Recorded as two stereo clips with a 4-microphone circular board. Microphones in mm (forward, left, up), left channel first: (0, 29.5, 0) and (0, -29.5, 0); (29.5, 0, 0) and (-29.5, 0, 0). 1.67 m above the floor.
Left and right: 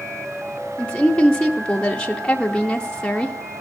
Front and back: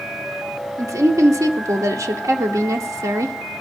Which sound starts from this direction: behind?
A woman speaking, at 0.8 s.